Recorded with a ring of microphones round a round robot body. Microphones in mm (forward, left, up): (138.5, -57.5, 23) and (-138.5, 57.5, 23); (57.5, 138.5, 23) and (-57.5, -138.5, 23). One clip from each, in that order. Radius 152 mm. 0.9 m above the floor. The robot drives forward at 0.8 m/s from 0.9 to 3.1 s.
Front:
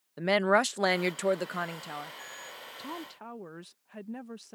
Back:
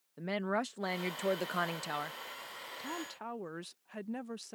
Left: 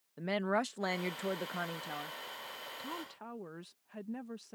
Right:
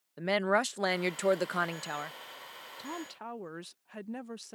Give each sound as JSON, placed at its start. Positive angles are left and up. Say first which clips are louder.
{"t": 0.2, "sound": "a woman speaking", "louder": "front 11 dB, right 5 dB", "azimuth_deg": -60}
{"t": 2.8, "sound": "a woman speaking", "louder": "even, right 3 dB", "azimuth_deg": -80}